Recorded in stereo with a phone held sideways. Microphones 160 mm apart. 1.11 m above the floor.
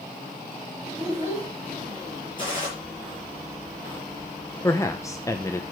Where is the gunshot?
30° left (ahead or behind), 7 m.